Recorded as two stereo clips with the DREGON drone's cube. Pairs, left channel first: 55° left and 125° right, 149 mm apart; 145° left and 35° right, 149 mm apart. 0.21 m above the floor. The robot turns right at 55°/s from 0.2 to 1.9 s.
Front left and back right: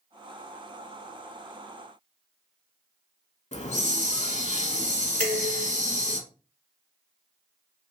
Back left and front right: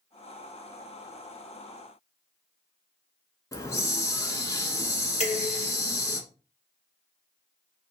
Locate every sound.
3.5 s a hiss: 80° left, 0.5 m
5.2 s dishes clattering: 135° left, 1.5 m